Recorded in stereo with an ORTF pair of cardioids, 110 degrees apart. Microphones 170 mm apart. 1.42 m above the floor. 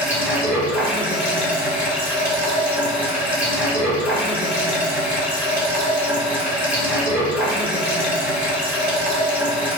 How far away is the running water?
About 1.4 m.